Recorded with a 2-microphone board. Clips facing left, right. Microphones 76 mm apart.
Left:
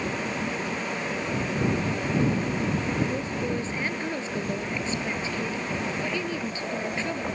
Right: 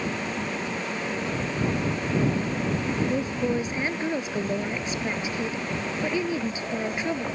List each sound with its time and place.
3.0 s a woman speaking: 20° right (ahead or behind)